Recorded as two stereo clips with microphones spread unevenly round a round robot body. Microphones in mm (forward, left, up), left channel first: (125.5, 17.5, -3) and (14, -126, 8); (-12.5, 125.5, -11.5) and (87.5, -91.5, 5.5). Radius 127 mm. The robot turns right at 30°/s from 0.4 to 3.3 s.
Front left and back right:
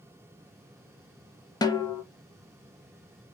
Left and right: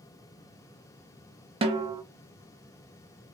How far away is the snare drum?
About 0.7 m.